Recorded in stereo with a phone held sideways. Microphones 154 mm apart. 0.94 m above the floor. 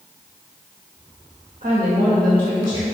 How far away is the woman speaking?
About 1.0 m.